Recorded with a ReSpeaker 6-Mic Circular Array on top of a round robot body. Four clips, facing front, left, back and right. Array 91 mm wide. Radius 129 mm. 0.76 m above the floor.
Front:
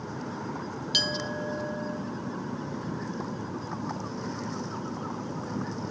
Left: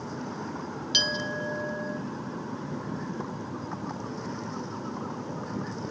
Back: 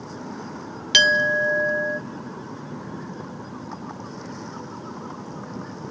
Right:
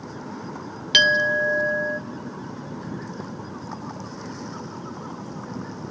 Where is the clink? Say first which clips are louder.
Right 13 dB, back 14 dB; 135° right, 0.6 m.